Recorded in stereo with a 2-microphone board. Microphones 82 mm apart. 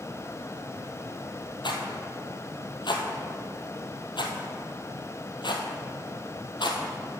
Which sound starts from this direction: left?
A rattle, at 1.6 s.